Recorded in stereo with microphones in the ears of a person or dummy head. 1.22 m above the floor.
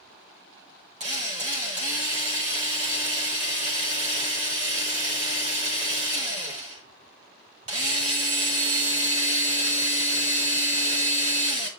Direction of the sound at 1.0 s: 35° right (ahead or behind).